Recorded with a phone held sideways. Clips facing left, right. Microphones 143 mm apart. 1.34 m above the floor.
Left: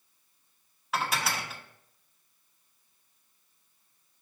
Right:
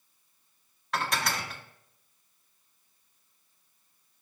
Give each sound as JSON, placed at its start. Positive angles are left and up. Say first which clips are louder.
{"t": 0.9, "sound": "dishes clattering", "louder": "even", "side_deg": 5, "distance_m": 1.1}